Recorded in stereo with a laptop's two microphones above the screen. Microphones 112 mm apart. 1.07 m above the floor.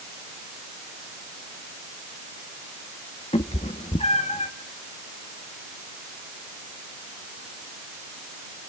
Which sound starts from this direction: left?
A cat meowing, at 3.3 s.